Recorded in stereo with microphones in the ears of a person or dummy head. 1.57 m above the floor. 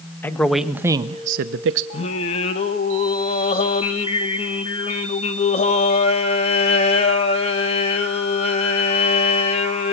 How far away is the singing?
About 2 m.